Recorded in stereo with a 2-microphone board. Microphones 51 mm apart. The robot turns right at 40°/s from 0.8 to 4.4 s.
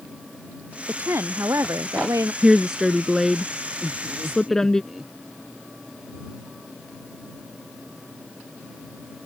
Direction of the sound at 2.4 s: 15° right (ahead or behind).